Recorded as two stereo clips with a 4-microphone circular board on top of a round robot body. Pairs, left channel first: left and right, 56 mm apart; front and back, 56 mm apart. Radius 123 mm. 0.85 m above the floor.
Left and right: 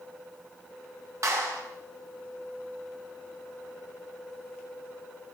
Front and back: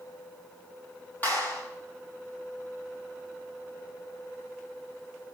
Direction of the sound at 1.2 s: 60° right.